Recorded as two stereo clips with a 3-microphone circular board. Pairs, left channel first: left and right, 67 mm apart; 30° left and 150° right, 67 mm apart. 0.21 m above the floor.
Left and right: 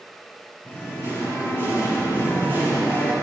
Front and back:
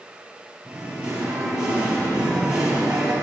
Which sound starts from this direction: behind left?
Singing, at 0.7 s.